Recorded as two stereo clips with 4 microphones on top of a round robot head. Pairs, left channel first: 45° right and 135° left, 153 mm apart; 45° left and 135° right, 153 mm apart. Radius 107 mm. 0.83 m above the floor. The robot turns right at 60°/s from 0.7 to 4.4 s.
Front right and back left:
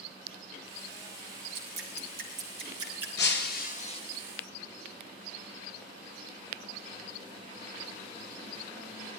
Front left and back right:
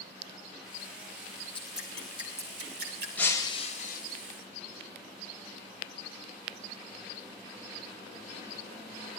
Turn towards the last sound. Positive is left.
turn(degrees=35)